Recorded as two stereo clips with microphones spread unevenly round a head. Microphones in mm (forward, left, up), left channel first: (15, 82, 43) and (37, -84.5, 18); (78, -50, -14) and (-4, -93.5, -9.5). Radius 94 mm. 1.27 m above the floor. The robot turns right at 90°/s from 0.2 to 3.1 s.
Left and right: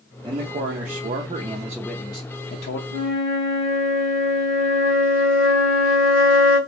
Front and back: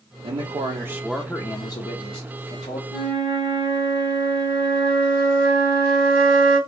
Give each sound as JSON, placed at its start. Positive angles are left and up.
{"t": 0.2, "sound": "a man speaking", "azimuth_deg": -140, "distance_m": 0.5}
{"t": 2.9, "sound": "a flute", "azimuth_deg": -65, "distance_m": 1.7}